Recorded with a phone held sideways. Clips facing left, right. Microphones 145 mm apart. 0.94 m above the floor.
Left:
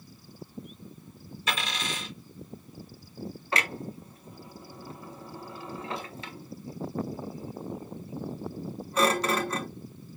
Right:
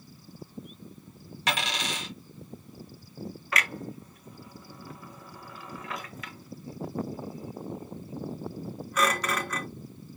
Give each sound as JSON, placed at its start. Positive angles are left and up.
{"t": 1.5, "sound": "a dropped coin", "side_deg": -75, "distance_m": 2.5}
{"t": 3.5, "sound": "a clunk", "side_deg": 25, "distance_m": 0.7}